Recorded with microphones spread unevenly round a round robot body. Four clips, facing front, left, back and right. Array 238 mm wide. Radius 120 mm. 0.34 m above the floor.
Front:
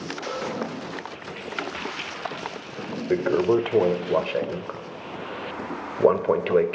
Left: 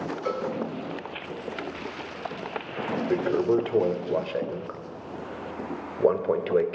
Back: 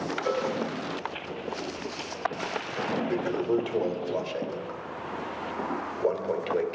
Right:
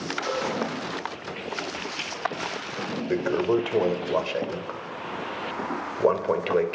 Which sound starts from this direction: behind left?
A cowbell, at 0.2 s.